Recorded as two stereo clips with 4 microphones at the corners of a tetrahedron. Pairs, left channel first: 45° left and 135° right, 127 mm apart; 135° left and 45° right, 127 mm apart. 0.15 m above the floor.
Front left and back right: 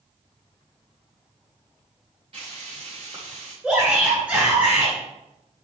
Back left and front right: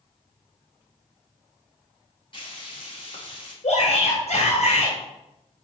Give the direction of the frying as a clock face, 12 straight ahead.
6 o'clock.